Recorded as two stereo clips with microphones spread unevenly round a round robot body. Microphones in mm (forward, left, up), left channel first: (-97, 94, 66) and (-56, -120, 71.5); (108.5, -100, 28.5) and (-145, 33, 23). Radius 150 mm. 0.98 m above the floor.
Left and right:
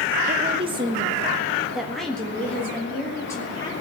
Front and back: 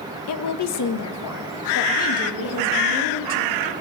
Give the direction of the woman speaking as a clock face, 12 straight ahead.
1 o'clock.